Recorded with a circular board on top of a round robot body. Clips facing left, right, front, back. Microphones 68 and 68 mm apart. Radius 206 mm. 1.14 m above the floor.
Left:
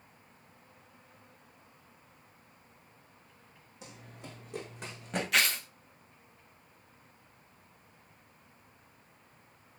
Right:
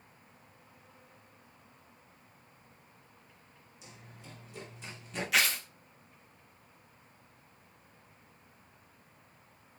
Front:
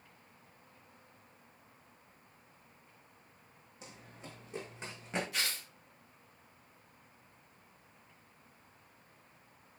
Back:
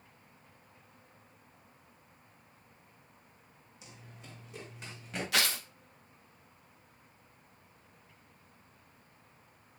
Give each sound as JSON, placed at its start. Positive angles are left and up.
{"t": 3.8, "sound": "running footsteps", "azimuth_deg": 55, "distance_m": 4.5}
{"t": 5.3, "sound": "tearing paper", "azimuth_deg": 180, "distance_m": 0.7}